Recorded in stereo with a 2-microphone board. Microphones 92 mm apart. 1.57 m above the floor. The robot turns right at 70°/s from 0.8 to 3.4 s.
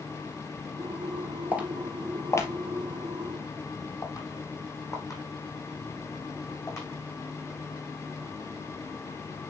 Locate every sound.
1.5 s footsteps: 20° right (ahead or behind), 1.7 m; by 6.8 s 35° left (ahead or behind), 6 m